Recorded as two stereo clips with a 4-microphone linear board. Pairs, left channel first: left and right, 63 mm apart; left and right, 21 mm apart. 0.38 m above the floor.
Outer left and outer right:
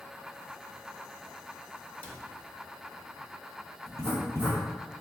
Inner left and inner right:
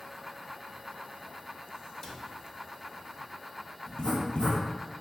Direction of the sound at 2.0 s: 25° left (ahead or behind).